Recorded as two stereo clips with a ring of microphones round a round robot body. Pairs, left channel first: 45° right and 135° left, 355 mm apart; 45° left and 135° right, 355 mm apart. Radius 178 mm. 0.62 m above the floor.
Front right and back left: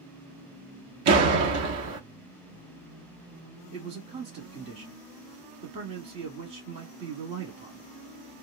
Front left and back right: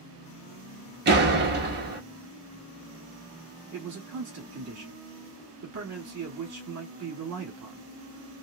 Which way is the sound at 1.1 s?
170° left.